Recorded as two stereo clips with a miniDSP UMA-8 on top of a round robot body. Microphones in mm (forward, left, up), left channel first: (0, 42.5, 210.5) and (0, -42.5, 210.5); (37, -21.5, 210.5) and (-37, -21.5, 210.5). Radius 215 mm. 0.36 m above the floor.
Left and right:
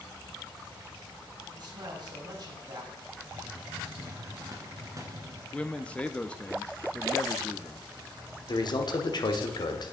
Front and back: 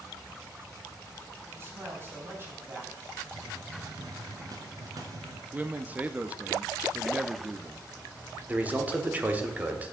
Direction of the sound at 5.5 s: 145° left.